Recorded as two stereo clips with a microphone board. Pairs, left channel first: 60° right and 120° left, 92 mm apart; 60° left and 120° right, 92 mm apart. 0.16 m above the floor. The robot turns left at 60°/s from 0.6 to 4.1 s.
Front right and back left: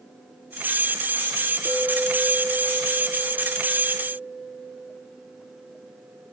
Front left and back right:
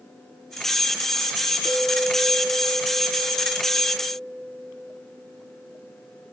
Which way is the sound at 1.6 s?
85° left.